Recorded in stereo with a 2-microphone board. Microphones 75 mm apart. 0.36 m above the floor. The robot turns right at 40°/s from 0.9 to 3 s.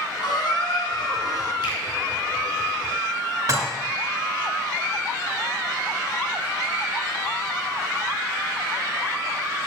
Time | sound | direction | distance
0.2 | a squeak | 70° left (ahead or behind) | 2 m
1.6 | a finger snap | 75° left (ahead or behind) | 4.5 m
3.5 | dishes clattering | 45° right (ahead or behind) | 2.5 m